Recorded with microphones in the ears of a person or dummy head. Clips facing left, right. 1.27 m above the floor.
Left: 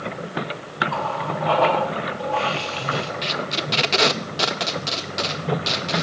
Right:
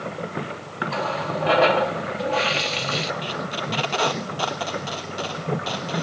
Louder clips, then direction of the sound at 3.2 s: Left 2 dB; 30° left (ahead or behind).